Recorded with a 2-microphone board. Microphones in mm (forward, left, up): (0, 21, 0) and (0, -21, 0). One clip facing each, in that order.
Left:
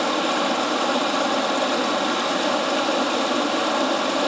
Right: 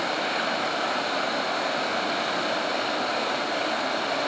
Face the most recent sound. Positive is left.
turn(degrees=60)  # may be behind; listen again after turning